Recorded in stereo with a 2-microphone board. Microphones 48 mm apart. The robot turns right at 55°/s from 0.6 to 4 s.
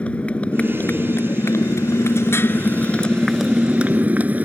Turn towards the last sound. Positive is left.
turn(degrees=-145)